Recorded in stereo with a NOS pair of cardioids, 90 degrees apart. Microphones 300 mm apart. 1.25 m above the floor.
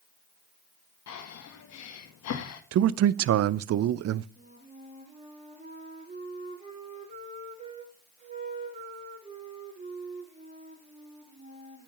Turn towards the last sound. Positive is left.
turn(degrees=-25)